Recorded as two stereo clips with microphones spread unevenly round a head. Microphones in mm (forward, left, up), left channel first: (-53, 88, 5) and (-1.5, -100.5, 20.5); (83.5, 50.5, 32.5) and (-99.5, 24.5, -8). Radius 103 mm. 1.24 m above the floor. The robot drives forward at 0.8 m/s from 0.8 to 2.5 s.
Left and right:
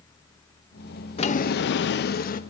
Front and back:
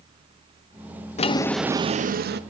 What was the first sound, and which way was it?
A drawer, 45° left.